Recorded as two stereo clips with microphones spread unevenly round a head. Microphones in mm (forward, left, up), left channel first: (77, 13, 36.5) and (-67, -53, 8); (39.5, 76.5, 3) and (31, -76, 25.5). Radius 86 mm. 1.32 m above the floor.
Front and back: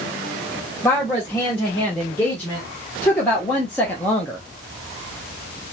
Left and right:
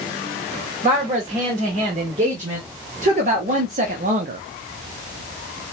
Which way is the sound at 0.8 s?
55° right.